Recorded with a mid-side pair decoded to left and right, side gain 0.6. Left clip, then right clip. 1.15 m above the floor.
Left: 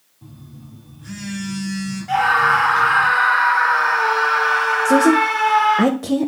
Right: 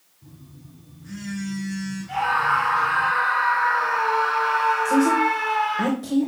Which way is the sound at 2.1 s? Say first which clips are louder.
Left 6 dB; 60° left.